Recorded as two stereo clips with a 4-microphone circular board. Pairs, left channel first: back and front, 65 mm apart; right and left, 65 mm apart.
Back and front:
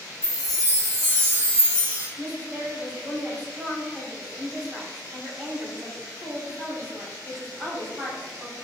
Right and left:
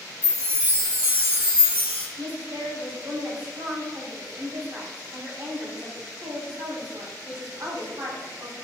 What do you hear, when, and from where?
0.2 s a chime: 45° left, 1.7 m
2.2 s a woman speaking: 85° left, 1.9 m